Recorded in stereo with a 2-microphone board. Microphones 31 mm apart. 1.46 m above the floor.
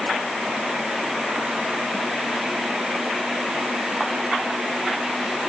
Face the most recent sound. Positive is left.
No sound to turn to.